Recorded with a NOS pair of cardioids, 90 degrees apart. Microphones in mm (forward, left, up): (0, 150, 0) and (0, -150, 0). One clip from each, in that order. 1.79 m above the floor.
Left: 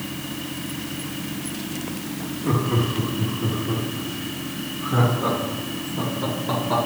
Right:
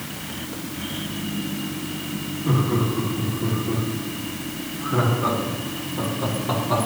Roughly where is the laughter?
Ahead.